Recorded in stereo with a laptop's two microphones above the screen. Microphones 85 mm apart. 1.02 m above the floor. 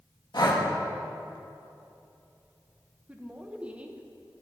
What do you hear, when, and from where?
0.3 s breathing: 60° left (ahead or behind), 1.4 m
3.1 s a woman speaking: 15° right (ahead or behind), 0.8 m